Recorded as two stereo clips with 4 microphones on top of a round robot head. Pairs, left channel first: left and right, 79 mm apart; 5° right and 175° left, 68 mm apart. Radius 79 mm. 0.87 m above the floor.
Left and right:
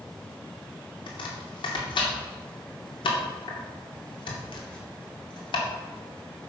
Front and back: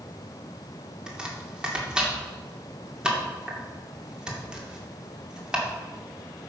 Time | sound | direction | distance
1.1 | chopping | 95° left | 2.5 m